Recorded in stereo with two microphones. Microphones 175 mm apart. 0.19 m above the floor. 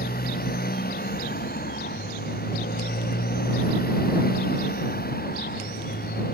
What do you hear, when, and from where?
0.0 s a motorcycle: 60° left (ahead or behind)